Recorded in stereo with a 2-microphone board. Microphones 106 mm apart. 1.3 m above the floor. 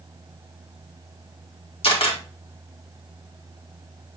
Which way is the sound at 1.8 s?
65° left (ahead or behind).